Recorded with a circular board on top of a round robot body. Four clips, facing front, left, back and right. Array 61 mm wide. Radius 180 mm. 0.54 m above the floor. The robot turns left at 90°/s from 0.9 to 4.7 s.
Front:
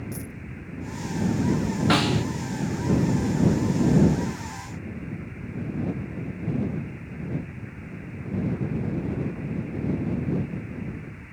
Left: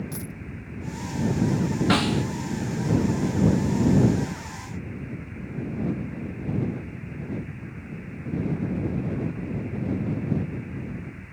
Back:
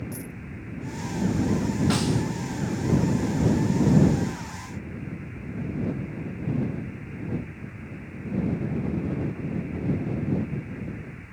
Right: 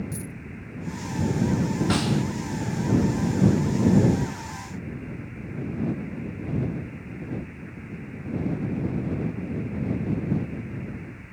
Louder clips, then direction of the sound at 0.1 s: Even, even; 90° left.